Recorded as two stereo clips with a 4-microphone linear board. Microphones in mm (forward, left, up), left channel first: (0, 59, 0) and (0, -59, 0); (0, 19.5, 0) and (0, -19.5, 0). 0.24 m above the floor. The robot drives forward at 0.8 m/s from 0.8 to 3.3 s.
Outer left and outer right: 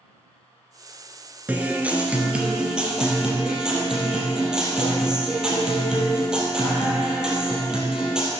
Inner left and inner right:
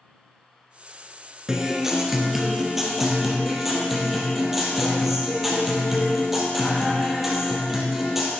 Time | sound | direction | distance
1.5 | a guitar | 15° right (ahead or behind) | 1.1 m